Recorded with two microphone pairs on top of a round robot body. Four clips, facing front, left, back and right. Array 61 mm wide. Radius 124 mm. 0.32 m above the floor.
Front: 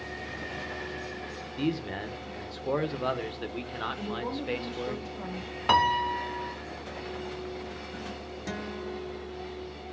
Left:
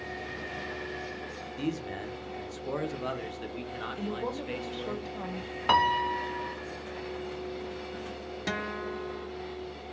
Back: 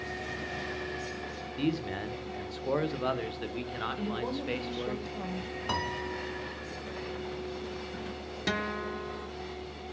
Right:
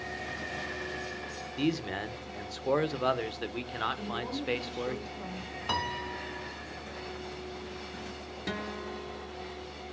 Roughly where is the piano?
Ahead left.